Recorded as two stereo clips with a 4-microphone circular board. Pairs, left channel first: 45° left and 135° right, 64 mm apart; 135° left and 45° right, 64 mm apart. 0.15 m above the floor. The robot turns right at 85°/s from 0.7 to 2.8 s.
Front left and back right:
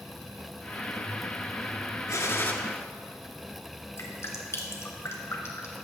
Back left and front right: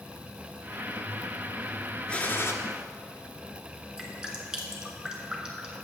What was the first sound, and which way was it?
A gunshot, 65° left.